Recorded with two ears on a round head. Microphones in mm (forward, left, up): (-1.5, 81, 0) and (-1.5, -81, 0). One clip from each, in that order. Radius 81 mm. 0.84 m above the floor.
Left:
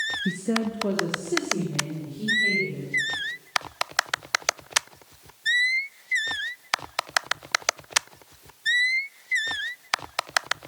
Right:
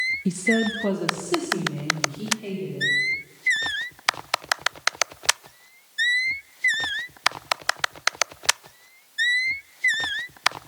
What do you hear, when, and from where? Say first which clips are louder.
0.2 s a woman speaking: right 5 dB; 25° right (ahead or behind), 0.5 m